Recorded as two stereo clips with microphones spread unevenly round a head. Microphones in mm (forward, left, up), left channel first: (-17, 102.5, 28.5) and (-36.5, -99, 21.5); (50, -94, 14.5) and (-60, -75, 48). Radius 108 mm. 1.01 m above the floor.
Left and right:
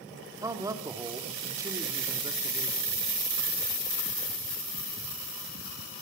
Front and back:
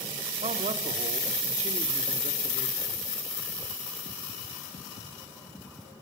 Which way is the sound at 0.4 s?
170° right.